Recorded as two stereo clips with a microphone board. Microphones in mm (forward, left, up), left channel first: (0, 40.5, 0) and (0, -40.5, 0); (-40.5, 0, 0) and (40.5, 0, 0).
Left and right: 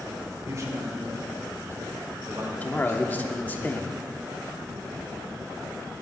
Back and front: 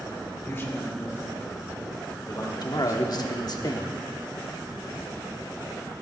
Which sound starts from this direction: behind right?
A man speaking, at 0.4 s.